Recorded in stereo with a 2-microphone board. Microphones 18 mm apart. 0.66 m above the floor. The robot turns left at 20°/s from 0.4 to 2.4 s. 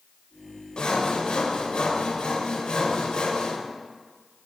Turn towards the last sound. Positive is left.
turn(degrees=80)